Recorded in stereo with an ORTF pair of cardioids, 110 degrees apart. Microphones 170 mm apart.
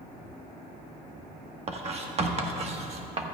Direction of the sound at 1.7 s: 40° right.